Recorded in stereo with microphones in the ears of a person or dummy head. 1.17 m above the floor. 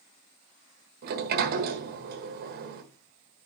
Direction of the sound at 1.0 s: 50° right (ahead or behind).